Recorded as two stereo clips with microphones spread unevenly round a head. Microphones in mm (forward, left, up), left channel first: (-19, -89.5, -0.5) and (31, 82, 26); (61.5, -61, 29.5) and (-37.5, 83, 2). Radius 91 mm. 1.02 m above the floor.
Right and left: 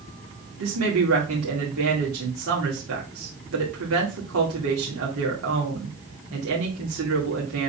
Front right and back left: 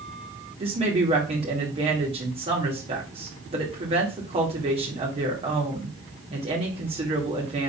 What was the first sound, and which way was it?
A woman speaking, 70° left.